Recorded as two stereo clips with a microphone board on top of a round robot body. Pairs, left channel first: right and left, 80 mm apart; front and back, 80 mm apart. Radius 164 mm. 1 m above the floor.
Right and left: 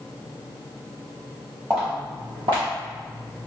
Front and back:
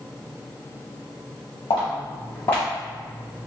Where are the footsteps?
35° left, 2 m; by 3.5 s 115° left, 1.6 m.